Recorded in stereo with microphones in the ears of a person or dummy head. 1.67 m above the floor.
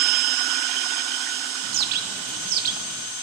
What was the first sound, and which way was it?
A bird, 55° right (ahead or behind).